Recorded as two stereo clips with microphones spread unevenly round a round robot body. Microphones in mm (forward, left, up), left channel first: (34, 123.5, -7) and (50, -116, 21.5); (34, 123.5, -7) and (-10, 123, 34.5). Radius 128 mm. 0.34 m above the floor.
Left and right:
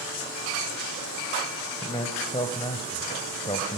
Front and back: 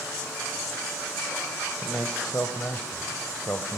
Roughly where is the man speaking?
Ahead left.